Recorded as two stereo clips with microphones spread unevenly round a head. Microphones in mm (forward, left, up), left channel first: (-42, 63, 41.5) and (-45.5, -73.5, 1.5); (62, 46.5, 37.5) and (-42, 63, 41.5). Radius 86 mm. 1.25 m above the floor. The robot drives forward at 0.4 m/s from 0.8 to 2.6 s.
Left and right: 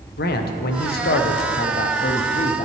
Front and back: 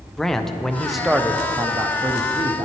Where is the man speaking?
75° left, 0.7 m; by 2.6 s 135° left, 0.9 m.